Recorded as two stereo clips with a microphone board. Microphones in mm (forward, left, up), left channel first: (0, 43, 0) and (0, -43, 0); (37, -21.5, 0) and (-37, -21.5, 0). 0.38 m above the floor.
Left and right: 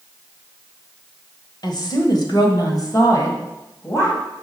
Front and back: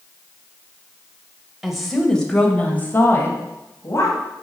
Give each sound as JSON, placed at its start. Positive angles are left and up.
{"t": 1.6, "sound": "a woman speaking", "azimuth_deg": 95, "distance_m": 1.5}